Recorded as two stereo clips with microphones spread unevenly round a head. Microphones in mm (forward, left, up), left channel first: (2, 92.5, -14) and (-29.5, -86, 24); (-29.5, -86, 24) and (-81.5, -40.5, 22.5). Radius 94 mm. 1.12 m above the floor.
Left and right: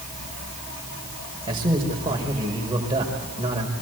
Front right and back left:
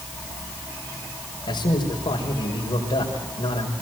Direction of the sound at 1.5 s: 30° right.